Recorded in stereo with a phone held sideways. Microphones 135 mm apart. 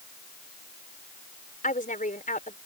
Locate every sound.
1.6 s a woman speaking: 75° left (ahead or behind)